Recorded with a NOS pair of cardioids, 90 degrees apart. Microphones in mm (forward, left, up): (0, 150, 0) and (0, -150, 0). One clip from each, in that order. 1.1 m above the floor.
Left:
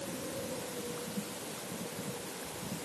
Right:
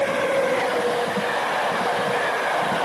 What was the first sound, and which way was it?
Only background noise.